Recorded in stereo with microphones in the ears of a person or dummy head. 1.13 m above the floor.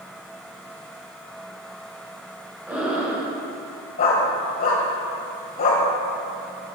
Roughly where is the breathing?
Centre.